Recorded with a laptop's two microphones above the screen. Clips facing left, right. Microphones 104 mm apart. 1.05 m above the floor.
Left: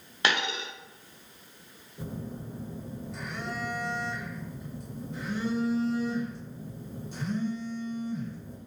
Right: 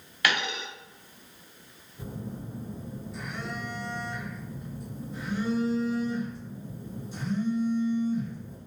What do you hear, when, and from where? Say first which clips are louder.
0.2 s a dropped coin: even; 25° left (ahead or behind), 0.6 m
2.0 s a phone buzzing: even; 65° left (ahead or behind), 1.4 m